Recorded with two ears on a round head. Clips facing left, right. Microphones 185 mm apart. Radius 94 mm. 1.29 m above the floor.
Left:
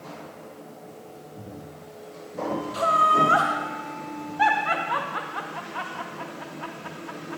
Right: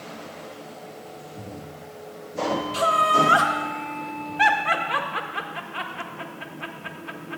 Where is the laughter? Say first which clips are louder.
Even; 35° right (ahead or behind), 1.5 m.